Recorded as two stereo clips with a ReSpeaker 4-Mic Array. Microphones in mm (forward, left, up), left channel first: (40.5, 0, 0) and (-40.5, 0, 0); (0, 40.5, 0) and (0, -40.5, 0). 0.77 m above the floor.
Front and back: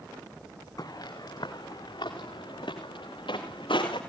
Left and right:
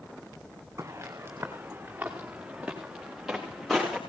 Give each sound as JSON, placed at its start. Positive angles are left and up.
{"t": 0.8, "sound": "footsteps", "azimuth_deg": -35, "distance_m": 3.5}